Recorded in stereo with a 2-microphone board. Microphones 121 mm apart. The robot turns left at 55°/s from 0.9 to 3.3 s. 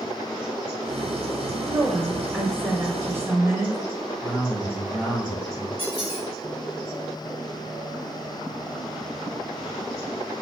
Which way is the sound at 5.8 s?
50° right (ahead or behind).